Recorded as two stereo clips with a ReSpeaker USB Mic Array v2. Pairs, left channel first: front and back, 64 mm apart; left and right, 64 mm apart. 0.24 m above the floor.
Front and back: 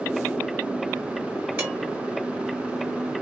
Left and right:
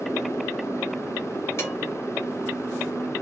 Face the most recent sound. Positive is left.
turn(degrees=120)